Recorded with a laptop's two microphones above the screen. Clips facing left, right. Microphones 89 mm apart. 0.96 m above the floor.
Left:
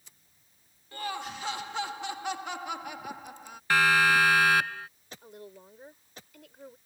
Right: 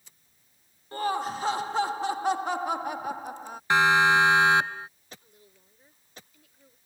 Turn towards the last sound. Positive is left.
turn(degrees=75)  # may be behind; listen again after turning